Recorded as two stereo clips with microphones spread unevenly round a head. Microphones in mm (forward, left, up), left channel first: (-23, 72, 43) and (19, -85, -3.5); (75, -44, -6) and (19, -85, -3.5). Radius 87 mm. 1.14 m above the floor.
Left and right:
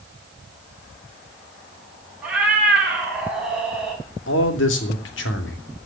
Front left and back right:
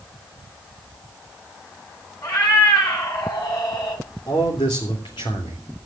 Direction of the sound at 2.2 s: 10° left.